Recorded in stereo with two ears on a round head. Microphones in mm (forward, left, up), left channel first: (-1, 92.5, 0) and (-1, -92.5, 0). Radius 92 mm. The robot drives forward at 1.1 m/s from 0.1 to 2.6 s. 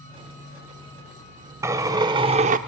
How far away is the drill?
About 1.5 m.